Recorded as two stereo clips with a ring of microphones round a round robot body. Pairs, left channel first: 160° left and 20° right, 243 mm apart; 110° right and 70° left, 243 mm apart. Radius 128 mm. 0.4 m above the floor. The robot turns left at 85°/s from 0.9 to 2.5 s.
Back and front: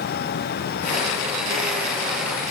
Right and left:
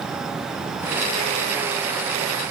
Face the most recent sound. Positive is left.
No sound to turn to.